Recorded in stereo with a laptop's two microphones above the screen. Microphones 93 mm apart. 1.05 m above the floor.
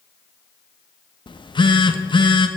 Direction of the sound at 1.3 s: 55° left (ahead or behind).